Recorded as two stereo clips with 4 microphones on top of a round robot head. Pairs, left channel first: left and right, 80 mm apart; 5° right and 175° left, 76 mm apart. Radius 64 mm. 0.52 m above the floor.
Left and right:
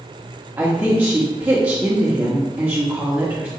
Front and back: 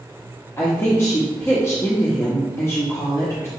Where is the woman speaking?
30° right, 0.8 m.